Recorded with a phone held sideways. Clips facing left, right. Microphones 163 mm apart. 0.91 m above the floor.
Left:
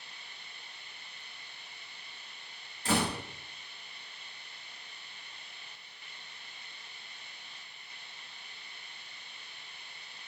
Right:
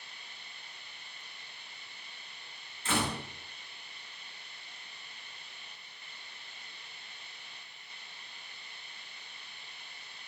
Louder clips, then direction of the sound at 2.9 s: Left 2 dB; 35° left (ahead or behind).